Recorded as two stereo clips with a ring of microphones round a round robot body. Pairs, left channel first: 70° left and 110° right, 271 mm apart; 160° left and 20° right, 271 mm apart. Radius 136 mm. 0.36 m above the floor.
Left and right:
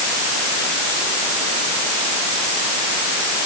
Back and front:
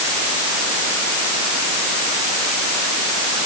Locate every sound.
Only background noise.